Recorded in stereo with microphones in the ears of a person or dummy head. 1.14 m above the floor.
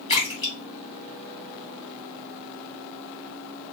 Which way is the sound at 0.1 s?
35° left (ahead or behind).